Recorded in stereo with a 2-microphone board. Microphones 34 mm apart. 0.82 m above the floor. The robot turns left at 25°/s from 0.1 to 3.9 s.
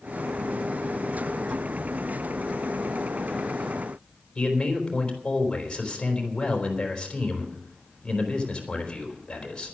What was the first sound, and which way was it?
A man speaking, 25° left (ahead or behind).